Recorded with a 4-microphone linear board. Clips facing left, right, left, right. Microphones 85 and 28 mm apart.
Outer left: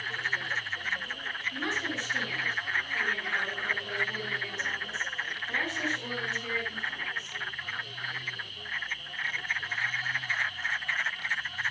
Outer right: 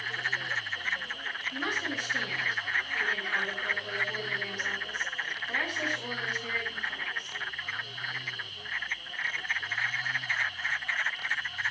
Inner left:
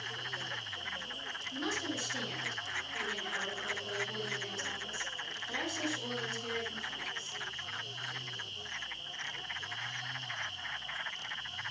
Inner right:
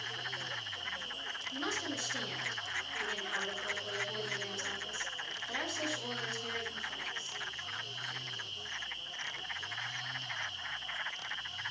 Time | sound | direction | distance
1.5 | a woman speaking | 10° right (ahead or behind) | 9.5 m